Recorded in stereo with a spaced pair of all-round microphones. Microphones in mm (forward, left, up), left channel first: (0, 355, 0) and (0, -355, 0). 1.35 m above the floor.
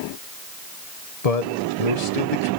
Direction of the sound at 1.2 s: 60° left (ahead or behind).